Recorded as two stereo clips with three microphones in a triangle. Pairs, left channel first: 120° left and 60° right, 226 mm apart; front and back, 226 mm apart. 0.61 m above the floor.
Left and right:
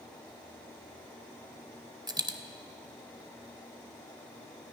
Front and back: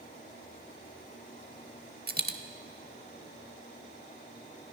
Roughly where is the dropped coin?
Behind right.